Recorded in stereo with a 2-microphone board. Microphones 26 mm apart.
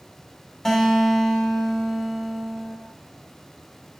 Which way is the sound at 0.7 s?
10° left (ahead or behind).